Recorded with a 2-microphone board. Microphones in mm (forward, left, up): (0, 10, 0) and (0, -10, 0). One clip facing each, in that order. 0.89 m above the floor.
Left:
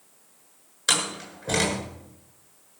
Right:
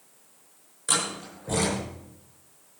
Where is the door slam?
55° left (ahead or behind), 8 m.